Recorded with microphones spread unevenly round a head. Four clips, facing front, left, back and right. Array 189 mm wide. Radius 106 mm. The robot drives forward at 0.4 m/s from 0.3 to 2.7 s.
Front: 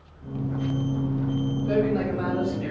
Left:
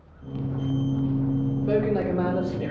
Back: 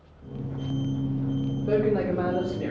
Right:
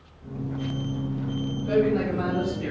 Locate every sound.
1.7 s a man speaking: 145° left, 1.5 m; by 2.7 s 150° left, 1.9 m